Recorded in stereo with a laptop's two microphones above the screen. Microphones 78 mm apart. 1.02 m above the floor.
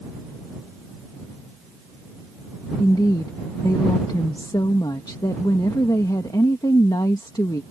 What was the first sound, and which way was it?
A woman speaking, 65° left (ahead or behind).